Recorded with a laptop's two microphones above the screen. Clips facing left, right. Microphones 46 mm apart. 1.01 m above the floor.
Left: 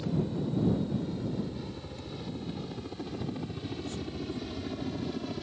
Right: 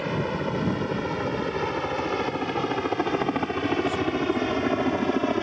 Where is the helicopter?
70° right (ahead or behind); by 5.4 s 55° right (ahead or behind).